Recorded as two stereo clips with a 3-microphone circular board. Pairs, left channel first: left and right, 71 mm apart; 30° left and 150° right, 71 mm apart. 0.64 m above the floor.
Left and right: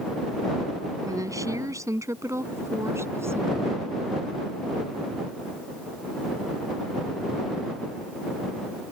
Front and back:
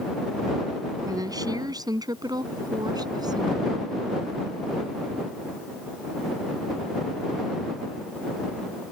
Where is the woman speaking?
125° right; by 3.9 s 145° right.